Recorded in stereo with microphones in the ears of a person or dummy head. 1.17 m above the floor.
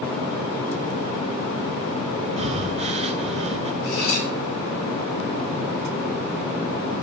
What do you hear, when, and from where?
2.4 s breathing: 40° right (ahead or behind), 0.6 m
3.8 s cutlery clinking: 85° left, 4 m